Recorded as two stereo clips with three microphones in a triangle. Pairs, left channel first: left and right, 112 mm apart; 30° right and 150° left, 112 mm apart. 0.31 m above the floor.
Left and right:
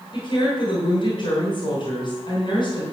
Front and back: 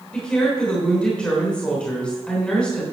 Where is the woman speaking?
50° left, 3 m.